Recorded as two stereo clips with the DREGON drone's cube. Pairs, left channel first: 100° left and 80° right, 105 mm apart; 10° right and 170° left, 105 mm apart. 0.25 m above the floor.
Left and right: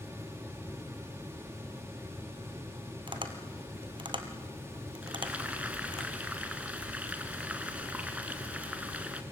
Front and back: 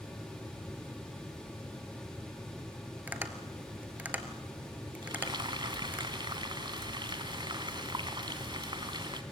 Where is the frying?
155° right, 1.6 m.